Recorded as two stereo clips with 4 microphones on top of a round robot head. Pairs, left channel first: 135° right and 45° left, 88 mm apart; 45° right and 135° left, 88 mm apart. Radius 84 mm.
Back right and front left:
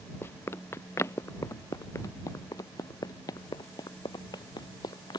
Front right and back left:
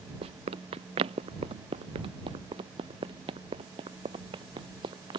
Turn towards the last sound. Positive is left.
turn(degrees=175)